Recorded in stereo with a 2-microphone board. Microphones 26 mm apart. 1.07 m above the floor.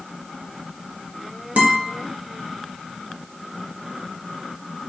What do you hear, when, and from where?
1.6 s a guitar: 70° right (ahead or behind), 0.7 m